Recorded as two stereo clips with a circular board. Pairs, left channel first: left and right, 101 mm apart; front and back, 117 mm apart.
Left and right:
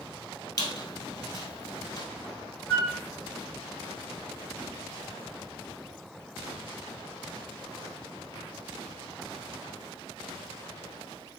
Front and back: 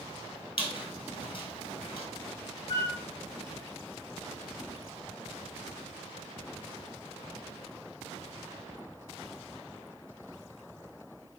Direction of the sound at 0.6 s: 35° left.